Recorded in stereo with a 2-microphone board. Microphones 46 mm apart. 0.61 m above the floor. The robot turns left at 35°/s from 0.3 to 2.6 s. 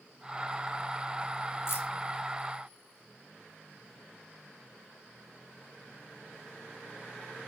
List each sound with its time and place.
1.7 s keys jangling: 70° left (ahead or behind), 1.6 m; by 1.9 s 65° left (ahead or behind), 1.6 m